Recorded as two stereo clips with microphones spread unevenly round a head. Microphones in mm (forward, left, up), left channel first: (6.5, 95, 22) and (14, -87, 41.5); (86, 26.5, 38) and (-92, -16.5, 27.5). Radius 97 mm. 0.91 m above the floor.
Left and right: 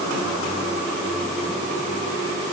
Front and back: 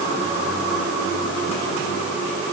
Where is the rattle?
I don't hear a rattle.